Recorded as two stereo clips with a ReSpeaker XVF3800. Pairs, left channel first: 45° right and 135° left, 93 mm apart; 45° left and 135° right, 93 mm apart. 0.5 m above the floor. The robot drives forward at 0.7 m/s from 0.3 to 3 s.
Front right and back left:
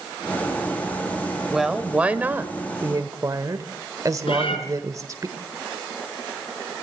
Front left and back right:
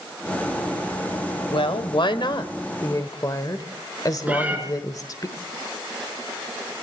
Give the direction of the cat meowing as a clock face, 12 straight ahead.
2 o'clock.